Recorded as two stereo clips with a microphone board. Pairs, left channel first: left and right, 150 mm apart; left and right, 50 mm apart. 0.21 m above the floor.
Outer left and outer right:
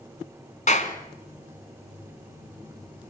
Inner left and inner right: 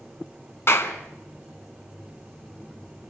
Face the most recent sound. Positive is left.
turn(degrees=55)  # may be behind; listen again after turning